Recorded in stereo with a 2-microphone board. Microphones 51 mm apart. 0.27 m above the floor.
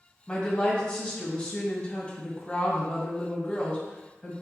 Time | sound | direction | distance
0.3 | a woman speaking | 20° left (ahead or behind) | 1.4 m